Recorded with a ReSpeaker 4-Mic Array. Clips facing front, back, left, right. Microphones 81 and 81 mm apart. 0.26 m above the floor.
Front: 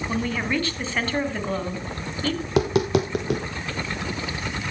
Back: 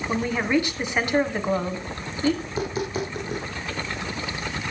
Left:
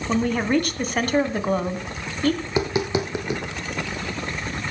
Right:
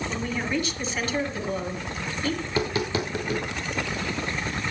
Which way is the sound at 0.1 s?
110° left.